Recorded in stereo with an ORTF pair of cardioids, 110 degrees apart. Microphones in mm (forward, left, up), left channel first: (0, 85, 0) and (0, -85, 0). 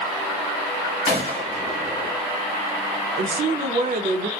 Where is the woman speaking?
40° right, 0.7 m.